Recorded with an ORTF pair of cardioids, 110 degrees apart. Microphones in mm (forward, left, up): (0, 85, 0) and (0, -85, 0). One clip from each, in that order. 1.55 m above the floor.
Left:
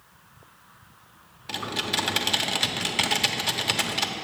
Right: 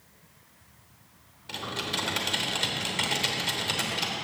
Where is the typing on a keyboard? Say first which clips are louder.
Left 4 dB; 30° left, 0.9 m.